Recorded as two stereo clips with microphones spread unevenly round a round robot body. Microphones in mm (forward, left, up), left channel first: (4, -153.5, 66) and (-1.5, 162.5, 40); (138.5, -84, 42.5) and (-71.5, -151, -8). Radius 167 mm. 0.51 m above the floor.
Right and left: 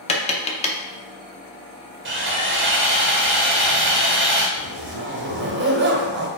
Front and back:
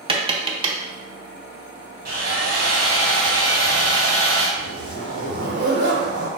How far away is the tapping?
About 0.6 m.